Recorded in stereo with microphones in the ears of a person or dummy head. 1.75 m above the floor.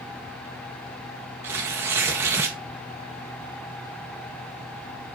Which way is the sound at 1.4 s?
20° right (ahead or behind).